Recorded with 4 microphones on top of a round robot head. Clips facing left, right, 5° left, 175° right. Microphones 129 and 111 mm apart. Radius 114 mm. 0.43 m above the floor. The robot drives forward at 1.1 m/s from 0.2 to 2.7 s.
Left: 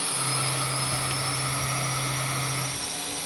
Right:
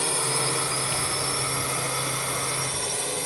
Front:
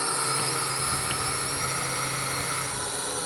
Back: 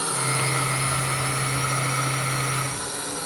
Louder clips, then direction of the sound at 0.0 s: Right 4 dB, back 2 dB; 95° right.